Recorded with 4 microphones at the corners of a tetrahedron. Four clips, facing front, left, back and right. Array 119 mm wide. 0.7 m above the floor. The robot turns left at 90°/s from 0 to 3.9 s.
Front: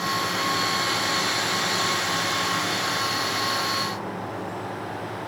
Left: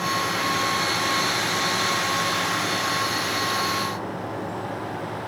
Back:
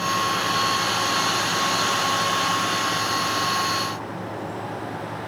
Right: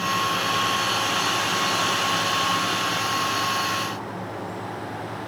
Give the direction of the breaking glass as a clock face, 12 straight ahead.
No breaking glass in this recording.